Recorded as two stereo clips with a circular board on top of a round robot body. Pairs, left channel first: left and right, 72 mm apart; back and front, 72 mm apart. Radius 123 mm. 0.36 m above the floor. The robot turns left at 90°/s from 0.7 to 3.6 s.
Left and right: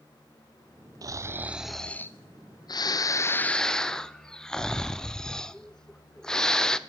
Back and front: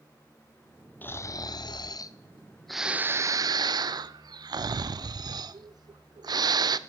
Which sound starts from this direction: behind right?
Snoring, at 1.0 s.